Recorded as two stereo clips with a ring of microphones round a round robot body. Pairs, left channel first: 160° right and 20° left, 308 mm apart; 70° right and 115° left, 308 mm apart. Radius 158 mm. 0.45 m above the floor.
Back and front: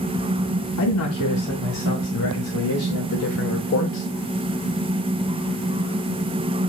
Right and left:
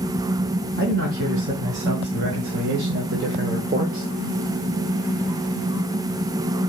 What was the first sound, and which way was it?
A man speaking, 165° left.